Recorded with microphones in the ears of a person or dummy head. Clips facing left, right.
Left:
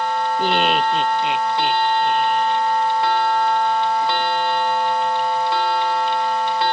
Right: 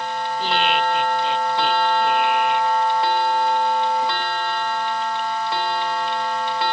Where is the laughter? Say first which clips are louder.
Left 1 dB; 45° left (ahead or behind); by 2.8 s 20° right (ahead or behind).